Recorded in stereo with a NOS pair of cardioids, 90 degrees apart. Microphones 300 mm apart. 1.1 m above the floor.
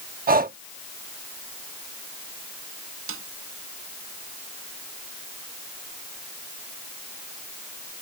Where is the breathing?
30° right.